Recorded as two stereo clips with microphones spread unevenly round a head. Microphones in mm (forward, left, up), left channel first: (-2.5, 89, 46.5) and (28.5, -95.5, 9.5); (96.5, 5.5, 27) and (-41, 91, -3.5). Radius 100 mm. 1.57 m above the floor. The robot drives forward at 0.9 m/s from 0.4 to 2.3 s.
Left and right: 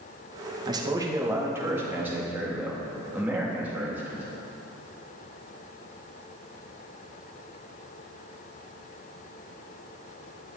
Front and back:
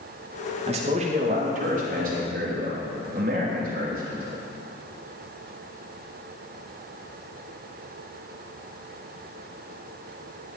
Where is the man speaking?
150° right, 1.9 m; by 4.2 s 165° right, 3 m.